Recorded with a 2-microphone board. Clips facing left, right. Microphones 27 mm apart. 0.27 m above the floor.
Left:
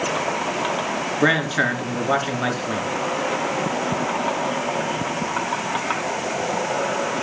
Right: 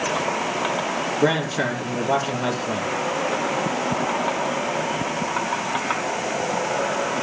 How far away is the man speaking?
About 3 m.